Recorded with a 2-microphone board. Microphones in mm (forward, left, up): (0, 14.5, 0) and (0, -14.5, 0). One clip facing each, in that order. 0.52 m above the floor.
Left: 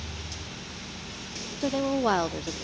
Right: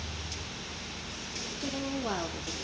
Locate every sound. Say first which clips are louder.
1.6 s a woman speaking: left 9 dB; 40° left (ahead or behind), 0.8 m